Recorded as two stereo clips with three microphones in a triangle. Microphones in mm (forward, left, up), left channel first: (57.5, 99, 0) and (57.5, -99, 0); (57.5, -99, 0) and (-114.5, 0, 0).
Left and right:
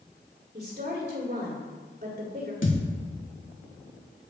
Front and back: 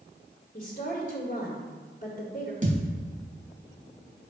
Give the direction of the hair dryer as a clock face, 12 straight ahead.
No hair dryer in this recording.